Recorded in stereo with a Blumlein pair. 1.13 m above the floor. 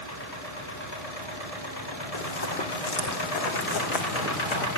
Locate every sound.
2.1 s running footsteps: 60° left, 4 m; by 4.7 s 30° left, 4.5 m